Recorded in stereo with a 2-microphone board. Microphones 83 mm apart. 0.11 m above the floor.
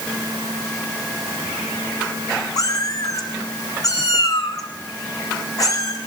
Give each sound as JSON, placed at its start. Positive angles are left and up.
{"t": 2.6, "sound": "a cat meowing", "side_deg": 45, "distance_m": 3.5}